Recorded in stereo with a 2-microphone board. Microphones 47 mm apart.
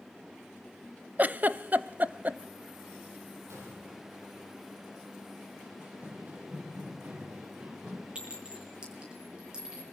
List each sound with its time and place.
1.2 s a giggle: 40° right (ahead or behind), 0.6 m
3.5 s a gunshot: 75° right (ahead or behind), 7 m
5.8 s running footsteps: 40° right (ahead or behind), 7.5 m; by 8.1 s 30° right (ahead or behind), 4 m
8.2 s a clink: 20° right (ahead or behind), 8.5 m